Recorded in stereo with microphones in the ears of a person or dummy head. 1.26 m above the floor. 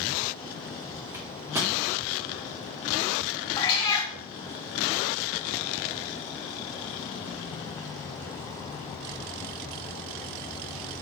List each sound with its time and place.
1.1 s a microwave: 10° right (ahead or behind), 0.5 m
3.6 s a cat meowing: 25° left (ahead or behind), 0.6 m